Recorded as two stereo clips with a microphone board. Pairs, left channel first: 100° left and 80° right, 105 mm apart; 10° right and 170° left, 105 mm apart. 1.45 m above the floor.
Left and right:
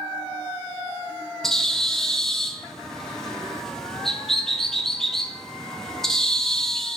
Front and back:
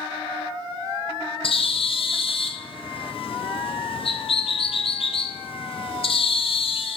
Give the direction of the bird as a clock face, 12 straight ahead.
11 o'clock.